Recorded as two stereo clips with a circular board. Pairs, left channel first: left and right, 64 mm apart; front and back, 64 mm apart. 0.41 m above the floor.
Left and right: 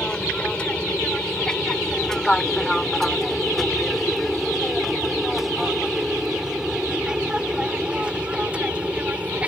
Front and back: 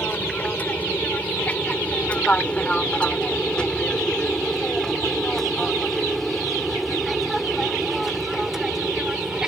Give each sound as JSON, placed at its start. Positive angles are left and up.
{"t": 0.0, "sound": "an aircraft", "azimuth_deg": 35}